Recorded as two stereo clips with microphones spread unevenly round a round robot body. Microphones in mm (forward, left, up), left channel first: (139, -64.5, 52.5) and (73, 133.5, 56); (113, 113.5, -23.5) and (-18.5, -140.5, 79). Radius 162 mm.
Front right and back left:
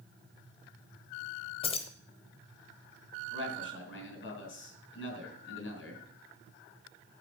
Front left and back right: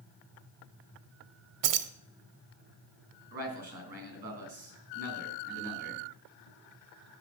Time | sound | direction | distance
1.6 | keys jangling | 120° right | 0.8 m
3.3 | a man speaking | 50° right | 4 m